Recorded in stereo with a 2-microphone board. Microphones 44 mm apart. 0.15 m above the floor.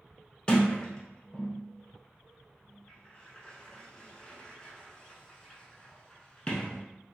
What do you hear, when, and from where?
0.5 s a sliding door: 20° left (ahead or behind), 0.7 m